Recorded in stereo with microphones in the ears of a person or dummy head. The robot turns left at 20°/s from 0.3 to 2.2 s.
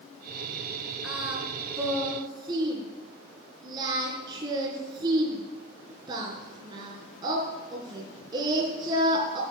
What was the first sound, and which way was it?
Singing, 5° right (ahead or behind).